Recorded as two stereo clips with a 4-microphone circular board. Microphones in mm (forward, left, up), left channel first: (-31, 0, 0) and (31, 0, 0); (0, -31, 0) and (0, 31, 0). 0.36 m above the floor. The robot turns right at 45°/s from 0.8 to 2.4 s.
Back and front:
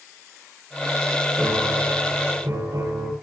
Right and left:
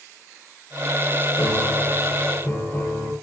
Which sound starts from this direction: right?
A piano, at 1.4 s.